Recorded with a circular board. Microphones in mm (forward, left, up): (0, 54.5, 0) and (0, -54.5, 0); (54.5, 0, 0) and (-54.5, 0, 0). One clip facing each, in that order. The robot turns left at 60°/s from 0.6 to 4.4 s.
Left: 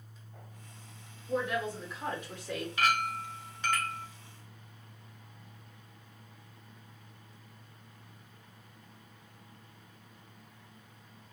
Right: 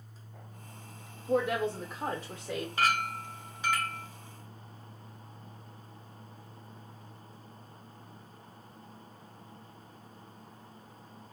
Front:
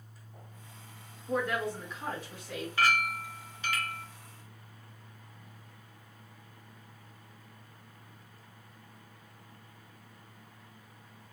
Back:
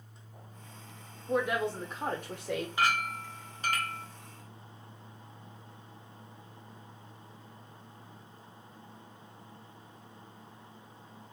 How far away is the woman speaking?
About 0.5 m.